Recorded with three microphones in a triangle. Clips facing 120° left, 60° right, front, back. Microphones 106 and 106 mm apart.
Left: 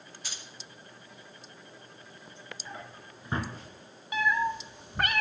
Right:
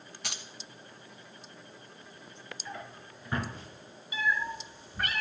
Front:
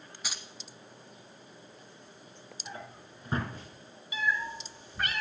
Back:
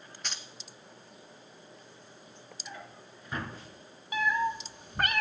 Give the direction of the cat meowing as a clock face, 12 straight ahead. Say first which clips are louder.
Left 4 dB, back 4 dB; 7 o'clock.